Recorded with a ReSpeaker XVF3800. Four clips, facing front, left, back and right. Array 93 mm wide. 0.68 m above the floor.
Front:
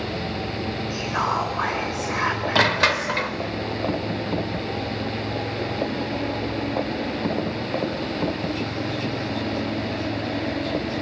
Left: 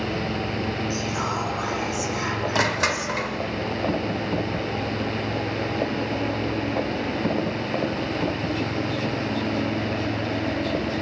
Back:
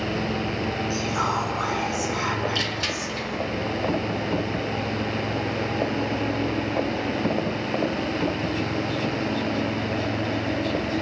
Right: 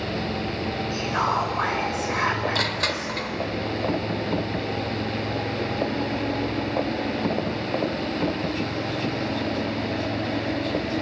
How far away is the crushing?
About 1.0 m.